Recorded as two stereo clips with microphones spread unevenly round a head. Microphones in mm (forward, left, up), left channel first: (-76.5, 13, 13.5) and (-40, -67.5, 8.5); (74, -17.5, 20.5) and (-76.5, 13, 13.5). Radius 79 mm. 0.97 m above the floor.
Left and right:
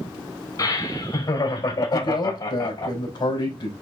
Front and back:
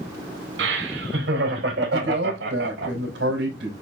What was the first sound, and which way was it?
Laughter, 155° left.